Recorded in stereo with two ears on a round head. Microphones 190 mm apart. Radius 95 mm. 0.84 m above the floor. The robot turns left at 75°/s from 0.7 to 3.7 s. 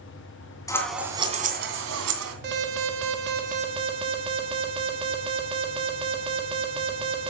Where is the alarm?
55° right, 1.6 m; by 7.3 s 150° right, 1.6 m.